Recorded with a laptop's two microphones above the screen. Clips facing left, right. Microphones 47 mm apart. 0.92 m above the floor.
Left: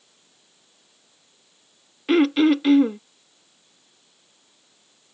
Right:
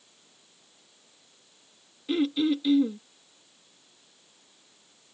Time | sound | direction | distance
2.1 | throat clearing | 75° left (ahead or behind) | ?